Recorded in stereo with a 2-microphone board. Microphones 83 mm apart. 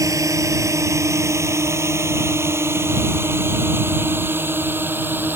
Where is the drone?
40° right (ahead or behind); by 5.4 s 25° right (ahead or behind).